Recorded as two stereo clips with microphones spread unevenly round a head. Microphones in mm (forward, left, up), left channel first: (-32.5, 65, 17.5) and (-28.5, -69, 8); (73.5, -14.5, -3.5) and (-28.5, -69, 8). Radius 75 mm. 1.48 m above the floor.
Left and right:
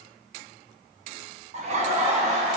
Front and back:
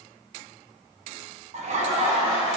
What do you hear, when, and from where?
1.5 s laughter: 125° right, 0.6 m